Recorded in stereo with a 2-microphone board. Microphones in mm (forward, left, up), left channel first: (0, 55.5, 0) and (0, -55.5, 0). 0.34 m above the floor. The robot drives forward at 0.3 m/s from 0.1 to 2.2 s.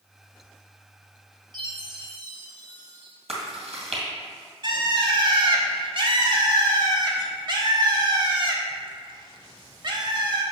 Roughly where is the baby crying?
I don't hear a baby crying.